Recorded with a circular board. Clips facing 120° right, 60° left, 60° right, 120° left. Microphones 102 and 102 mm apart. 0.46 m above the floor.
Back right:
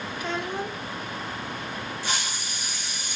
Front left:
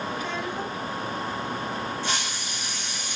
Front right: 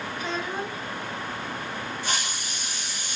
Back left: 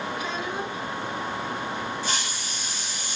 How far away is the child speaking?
About 2.0 m.